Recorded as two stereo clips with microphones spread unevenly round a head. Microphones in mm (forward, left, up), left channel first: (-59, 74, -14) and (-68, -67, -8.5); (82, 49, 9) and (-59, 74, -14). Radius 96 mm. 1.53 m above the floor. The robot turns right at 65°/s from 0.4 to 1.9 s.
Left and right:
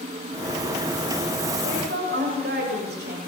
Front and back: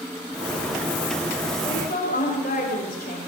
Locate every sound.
1.6 s a woman speaking: 80° right, 7.5 m; by 3.2 s 60° right, 7.5 m